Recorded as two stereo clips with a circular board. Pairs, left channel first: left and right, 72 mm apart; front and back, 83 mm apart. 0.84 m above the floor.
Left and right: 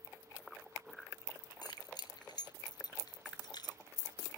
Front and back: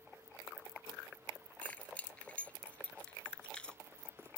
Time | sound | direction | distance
1.6 | keys jangling | 75° left | ?